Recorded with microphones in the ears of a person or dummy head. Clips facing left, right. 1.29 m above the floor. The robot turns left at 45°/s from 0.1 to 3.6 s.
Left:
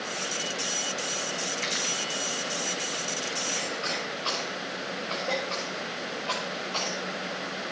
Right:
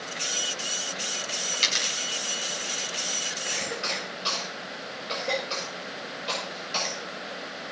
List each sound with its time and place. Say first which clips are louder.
1.5 s a dropped coin: left 3 dB; 55° right (ahead or behind), 2 m; by 3.4 s 10° left (ahead or behind), 2 m
3.5 s a cough: left 1 dB; 15° right (ahead or behind), 7 m; by 7.0 s 20° right (ahead or behind), 7 m